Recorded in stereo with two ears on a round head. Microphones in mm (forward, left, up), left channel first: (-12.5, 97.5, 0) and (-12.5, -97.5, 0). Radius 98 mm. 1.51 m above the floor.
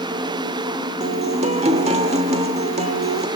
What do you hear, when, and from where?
1.0 s a guitar: 30° right (ahead or behind), 1.3 m